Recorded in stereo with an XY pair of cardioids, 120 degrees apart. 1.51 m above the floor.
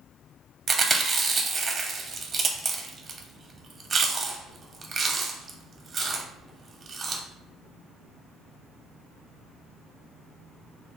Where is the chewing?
35° right, 0.6 m.